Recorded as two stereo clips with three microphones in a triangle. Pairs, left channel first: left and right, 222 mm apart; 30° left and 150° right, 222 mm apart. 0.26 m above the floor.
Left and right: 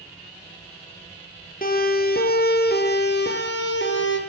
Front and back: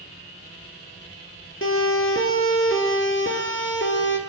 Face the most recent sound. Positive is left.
turn(degrees=60)